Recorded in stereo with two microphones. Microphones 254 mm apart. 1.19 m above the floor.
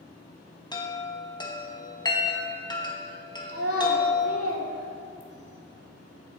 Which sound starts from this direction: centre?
A chime, at 0.7 s.